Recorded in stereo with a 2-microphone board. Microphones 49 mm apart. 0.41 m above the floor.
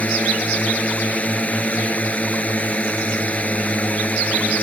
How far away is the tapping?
No tapping in this recording.